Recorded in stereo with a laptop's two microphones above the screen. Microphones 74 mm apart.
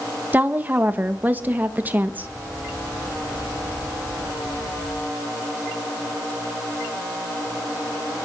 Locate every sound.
0.3 s a woman speaking: 25° right (ahead or behind), 1.1 m